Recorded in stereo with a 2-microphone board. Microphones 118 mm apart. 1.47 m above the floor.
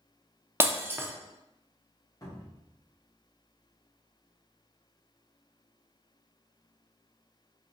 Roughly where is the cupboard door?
Left.